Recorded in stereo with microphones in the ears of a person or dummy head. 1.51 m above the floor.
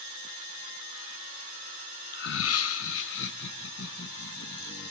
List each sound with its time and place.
2.1 s laughter: 45° left (ahead or behind), 0.5 m; by 4.9 s 60° left (ahead or behind), 3 m